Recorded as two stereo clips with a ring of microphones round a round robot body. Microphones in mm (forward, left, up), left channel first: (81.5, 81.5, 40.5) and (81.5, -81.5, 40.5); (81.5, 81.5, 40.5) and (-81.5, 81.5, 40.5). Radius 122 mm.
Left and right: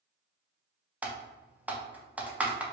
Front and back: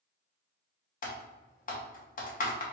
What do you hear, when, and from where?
1.0 s typing on a keyboard: 10° right, 1.0 m